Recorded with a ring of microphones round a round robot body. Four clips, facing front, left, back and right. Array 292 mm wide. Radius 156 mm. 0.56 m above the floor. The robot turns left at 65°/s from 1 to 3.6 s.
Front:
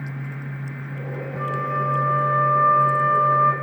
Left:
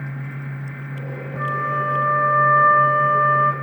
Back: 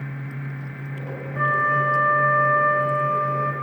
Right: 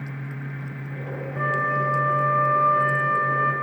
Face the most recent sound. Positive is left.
turn(degrees=55)